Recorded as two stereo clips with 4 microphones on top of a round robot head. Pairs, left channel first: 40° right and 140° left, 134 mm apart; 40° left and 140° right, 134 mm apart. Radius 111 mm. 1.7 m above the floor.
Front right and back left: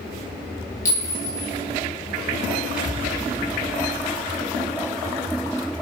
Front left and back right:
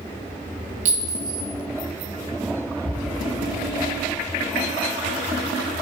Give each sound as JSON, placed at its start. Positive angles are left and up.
{"t": 0.8, "sound": "a clink", "azimuth_deg": -110, "distance_m": 1.9}
{"t": 2.8, "sound": "an explosion", "azimuth_deg": 120, "distance_m": 4.0}